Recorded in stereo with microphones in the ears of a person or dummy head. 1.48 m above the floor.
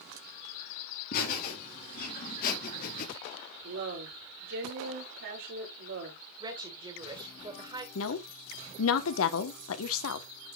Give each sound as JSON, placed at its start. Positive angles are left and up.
{"t": 1.1, "sound": "laughter", "side_deg": 55, "distance_m": 4.0}
{"t": 3.6, "sound": "a woman speaking", "side_deg": -70, "distance_m": 4.0}
{"t": 6.4, "sound": "a woman speaking", "side_deg": -25, "distance_m": 1.7}
{"t": 8.0, "sound": "a woman speaking", "side_deg": 80, "distance_m": 1.0}